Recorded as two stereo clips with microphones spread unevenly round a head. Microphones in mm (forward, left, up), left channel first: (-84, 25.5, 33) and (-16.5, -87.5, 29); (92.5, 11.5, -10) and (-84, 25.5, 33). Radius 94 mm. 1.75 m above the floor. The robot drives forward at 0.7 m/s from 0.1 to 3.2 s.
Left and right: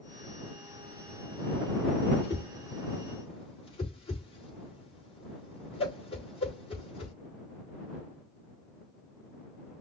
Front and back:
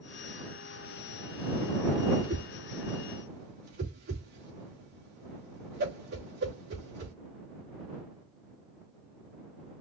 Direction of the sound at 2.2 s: 155° left.